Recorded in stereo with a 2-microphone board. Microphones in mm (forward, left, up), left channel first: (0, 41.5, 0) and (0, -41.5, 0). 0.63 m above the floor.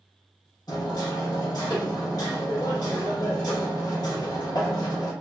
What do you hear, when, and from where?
0.7 s hammering: 50° left (ahead or behind), 1.0 m